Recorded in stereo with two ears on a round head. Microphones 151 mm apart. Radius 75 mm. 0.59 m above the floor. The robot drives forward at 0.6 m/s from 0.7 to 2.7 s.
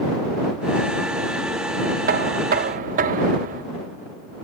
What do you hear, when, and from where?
2.1 s knocking: 55° right (ahead or behind), 0.5 m; by 3.6 s 50° right (ahead or behind), 0.5 m